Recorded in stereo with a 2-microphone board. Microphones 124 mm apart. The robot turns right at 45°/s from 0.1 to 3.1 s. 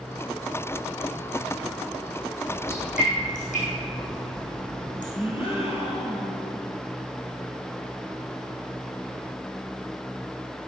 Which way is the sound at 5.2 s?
50° left (ahead or behind).